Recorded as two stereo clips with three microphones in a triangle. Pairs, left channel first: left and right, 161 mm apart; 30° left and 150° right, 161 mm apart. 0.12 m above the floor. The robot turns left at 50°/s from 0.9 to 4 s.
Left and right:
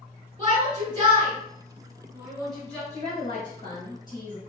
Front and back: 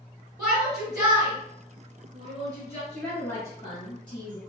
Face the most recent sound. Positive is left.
turn(degrees=50)